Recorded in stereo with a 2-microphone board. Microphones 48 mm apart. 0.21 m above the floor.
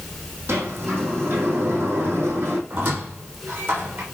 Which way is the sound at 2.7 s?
45° right (ahead or behind).